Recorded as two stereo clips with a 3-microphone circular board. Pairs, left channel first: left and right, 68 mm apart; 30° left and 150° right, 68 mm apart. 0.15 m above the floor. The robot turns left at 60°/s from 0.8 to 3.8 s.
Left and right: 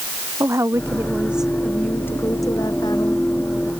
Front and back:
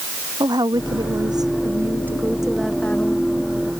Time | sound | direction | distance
0.4 | a woman speaking | 135° right | ?